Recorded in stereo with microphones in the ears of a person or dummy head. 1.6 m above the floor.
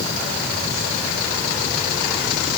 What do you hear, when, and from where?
Only background noise.